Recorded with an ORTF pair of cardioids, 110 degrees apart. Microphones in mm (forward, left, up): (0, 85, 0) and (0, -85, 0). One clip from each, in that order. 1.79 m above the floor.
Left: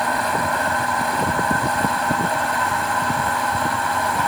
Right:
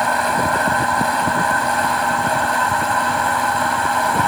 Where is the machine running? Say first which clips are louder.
Right 3 dB; 20° right.